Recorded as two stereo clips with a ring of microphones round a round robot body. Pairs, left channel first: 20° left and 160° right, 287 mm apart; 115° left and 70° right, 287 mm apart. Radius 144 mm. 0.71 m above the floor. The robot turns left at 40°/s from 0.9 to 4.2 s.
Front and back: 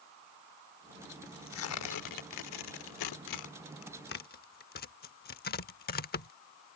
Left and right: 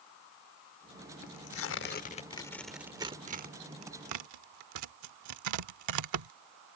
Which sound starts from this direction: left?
Tearing paper, at 1.2 s.